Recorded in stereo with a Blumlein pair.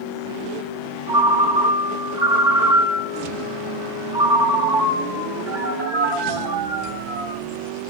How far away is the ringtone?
About 1.2 m.